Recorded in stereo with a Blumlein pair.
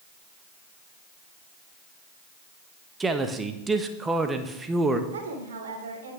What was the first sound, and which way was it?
A man speaking, 10° right.